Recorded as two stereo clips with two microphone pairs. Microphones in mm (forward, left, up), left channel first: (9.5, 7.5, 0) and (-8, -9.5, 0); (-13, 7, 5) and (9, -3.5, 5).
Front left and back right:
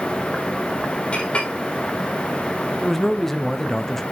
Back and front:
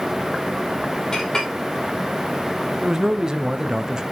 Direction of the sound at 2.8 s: 20° right.